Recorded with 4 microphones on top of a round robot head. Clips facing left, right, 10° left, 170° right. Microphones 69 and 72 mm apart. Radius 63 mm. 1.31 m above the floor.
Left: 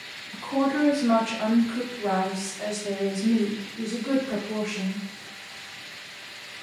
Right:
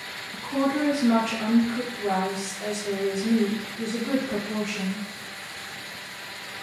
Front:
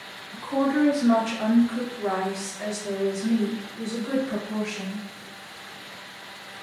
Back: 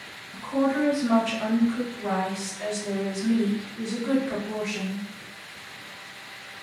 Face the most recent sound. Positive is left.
turn(degrees=150)